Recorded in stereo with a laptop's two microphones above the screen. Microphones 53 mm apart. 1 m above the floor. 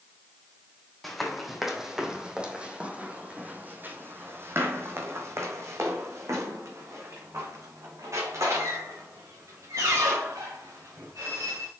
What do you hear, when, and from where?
1.0 s running footsteps: centre (ahead or behind), 2 m; by 11.7 s 80° right, 5 m